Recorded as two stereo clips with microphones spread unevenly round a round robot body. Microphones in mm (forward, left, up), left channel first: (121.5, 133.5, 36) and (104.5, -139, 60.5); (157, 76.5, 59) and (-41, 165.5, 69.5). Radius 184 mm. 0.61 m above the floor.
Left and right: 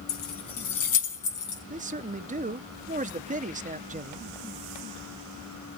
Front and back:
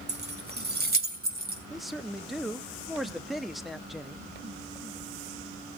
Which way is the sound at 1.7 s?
110° right.